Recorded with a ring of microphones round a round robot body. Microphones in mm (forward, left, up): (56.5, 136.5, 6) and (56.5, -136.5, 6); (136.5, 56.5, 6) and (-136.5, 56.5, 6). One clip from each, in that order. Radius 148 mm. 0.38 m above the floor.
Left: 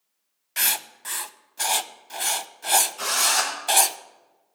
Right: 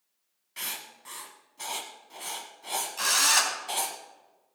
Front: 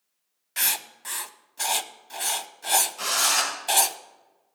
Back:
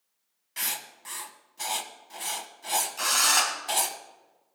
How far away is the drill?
About 3.5 m.